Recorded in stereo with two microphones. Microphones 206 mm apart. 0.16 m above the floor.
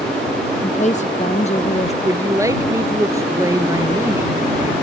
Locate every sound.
0.6 s a woman speaking: 40° left (ahead or behind); by 1.9 s 35° left (ahead or behind)
2.0 s a man speaking: 15° right (ahead or behind)